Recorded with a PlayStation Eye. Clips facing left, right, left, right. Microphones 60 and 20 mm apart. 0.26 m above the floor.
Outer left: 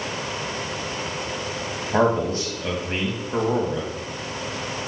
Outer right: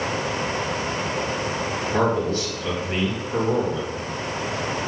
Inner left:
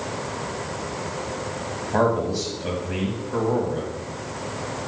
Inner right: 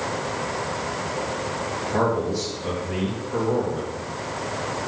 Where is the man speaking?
25° left (ahead or behind), 1.4 m.